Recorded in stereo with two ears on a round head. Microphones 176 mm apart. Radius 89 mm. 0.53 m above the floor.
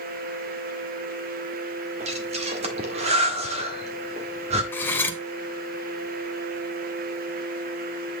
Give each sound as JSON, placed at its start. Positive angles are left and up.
{"t": 2.0, "sound": "breathing", "side_deg": -35, "distance_m": 1.5}
{"t": 4.7, "sound": "cutlery clinking", "side_deg": 10, "distance_m": 1.1}